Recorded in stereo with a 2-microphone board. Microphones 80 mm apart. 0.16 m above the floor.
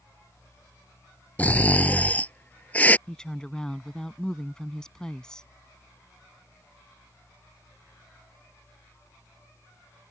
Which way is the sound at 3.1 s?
10° left (ahead or behind).